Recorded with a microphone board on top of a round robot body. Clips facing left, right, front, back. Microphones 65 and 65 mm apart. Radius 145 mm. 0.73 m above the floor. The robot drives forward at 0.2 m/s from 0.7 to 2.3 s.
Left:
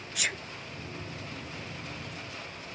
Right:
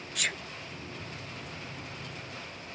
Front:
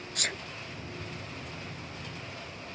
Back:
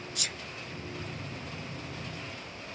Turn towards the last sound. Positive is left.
turn(degrees=25)